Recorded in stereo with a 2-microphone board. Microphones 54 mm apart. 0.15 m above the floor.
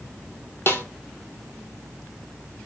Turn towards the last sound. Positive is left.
turn(degrees=45)  # may be behind; listen again after turning